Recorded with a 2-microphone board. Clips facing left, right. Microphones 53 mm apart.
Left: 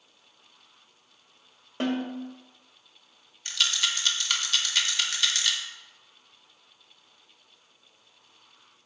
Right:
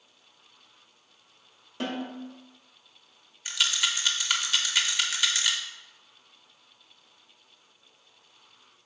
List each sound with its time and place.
1.8 s a snare drum: 40° left (ahead or behind), 1.6 m
3.5 s a rattle: 10° right (ahead or behind), 0.8 m